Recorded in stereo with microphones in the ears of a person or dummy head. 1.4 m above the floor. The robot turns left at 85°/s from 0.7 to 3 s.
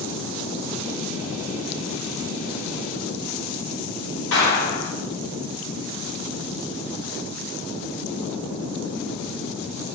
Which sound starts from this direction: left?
A clap, at 4.3 s.